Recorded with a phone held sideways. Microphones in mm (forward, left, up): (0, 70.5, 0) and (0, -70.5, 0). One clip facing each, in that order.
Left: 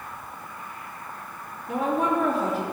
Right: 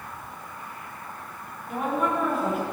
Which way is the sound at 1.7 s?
80° left.